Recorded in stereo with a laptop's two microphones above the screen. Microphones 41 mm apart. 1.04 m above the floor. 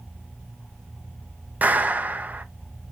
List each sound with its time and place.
1.6 s a clap: 40° right (ahead or behind), 0.7 m